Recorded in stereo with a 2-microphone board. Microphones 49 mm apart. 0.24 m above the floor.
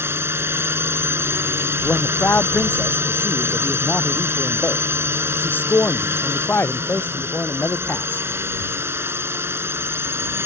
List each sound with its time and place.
0.0 s a drone: 55° right (ahead or behind)
1.8 s a man speaking: 40° left (ahead or behind)